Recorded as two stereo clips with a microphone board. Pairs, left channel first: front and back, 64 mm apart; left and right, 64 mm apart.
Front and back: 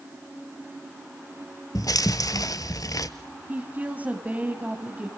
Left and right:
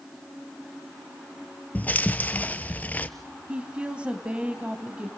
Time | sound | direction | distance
1.8 | chewing | 25° left | 0.8 m
3.5 | a woman speaking | 145° right | 1.4 m